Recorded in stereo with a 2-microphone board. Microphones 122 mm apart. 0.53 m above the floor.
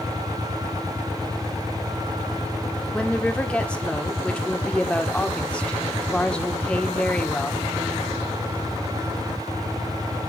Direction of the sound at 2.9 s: 10° left (ahead or behind).